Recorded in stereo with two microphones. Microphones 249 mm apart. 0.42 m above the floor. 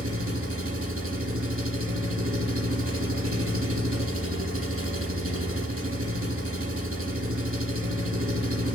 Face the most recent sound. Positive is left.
turn(degrees=-60)  # may be behind; listen again after turning